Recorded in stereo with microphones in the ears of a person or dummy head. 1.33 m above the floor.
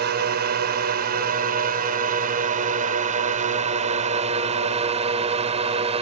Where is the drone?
55° right (ahead or behind); by 6.0 s 30° right (ahead or behind).